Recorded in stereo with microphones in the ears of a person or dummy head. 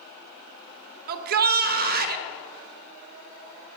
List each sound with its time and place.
1.1 s a shout: 55° right (ahead or behind), 1.2 m